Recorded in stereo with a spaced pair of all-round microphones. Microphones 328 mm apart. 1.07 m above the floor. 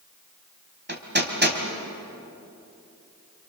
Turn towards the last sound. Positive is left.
turn(degrees=-30)  # may be behind; listen again after turning